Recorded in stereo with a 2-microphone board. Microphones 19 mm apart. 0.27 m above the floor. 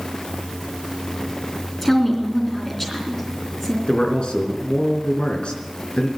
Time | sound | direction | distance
1.8 | a woman speaking | 15° left (ahead or behind) | 3.5 m
3.9 | a man speaking | 65° left (ahead or behind) | 3 m